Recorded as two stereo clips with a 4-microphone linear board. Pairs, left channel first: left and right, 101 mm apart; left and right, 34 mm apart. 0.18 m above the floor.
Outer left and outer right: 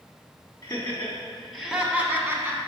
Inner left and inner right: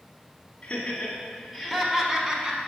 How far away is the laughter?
About 1.1 m.